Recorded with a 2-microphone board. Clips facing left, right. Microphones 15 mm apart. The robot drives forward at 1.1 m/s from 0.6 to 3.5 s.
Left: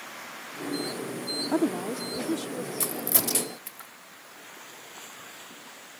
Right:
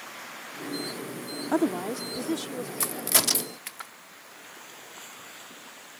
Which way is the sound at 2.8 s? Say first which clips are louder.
Right 6 dB; 30° right (ahead or behind).